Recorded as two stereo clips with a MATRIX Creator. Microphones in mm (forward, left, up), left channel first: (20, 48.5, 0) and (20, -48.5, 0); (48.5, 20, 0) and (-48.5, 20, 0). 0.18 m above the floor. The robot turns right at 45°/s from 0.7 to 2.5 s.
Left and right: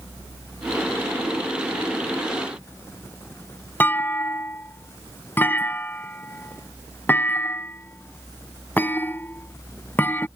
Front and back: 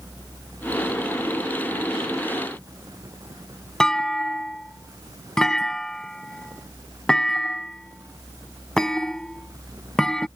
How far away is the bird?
I don't hear a bird.